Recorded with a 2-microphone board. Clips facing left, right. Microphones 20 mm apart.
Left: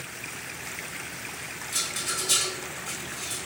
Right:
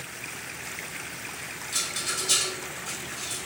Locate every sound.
1.7 s a rattle: 20° right (ahead or behind), 1.1 m